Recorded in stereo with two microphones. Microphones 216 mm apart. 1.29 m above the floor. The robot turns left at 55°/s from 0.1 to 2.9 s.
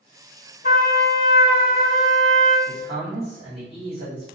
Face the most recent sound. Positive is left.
turn(degrees=25)  # may be behind; listen again after turning